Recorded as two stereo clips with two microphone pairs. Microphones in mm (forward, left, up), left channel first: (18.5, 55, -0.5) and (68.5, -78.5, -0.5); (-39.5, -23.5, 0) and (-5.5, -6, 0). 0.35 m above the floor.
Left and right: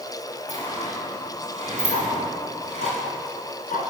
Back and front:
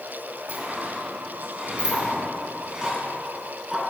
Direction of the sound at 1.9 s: 110° left.